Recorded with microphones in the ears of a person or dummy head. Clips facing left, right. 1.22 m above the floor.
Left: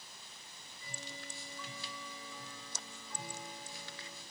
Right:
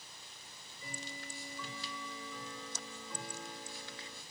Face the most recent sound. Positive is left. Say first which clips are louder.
# right 5 dB
turn(degrees=-70)  # may be behind; listen again after turning